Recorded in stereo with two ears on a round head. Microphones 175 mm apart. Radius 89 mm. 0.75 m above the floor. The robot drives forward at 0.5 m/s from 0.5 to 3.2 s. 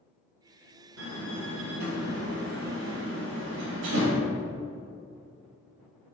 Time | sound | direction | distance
1.0 | a door slam | 80° right | 2.5 m